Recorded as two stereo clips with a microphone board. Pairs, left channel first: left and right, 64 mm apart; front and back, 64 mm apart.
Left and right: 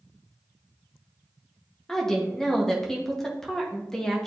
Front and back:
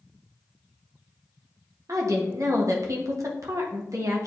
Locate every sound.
1.9 s a woman speaking: 170° left, 1.2 m